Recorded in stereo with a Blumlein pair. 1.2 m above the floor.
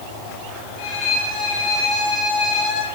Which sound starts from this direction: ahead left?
A violin, at 0.8 s.